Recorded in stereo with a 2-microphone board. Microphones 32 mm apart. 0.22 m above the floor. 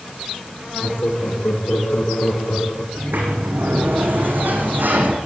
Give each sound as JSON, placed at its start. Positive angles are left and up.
{"t": 0.8, "sound": "laughter", "side_deg": 80, "distance_m": 8.0}
{"t": 3.0, "sound": "a sliding door", "side_deg": -75, "distance_m": 5.0}